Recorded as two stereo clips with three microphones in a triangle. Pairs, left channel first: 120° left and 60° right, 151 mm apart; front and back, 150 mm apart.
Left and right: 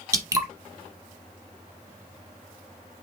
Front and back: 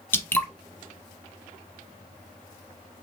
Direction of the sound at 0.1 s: 55° right.